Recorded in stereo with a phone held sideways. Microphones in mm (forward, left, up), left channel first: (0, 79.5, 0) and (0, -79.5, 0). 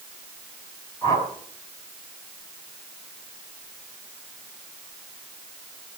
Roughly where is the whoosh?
Left.